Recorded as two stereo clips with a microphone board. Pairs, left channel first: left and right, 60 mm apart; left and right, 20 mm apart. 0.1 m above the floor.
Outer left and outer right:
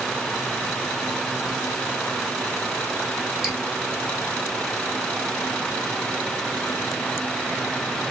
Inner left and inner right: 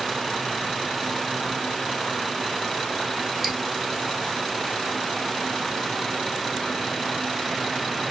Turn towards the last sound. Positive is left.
turn(degrees=-10)  # may be behind; listen again after turning